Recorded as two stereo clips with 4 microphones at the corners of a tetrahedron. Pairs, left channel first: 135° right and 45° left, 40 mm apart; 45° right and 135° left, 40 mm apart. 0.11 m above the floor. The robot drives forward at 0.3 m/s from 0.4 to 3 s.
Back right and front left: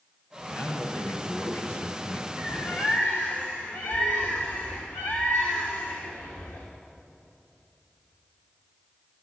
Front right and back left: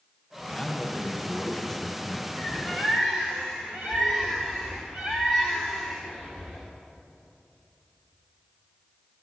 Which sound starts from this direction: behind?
A bird, at 2.4 s.